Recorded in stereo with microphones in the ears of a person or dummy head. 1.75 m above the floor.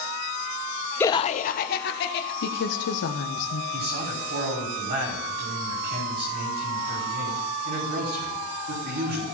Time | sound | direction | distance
1.0 | laughter | 10° left (ahead or behind) | 0.6 m
2.4 | a woman speaking | 70° left (ahead or behind) | 1.2 m
3.7 | a man speaking | 50° right (ahead or behind) | 5.5 m